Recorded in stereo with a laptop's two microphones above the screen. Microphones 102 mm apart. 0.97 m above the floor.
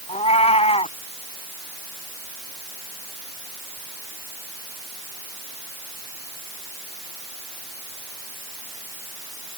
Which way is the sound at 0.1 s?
80° left.